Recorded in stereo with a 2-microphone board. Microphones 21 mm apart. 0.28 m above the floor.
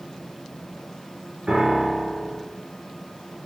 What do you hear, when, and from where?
1.5 s a piano: 40° right (ahead or behind), 1.1 m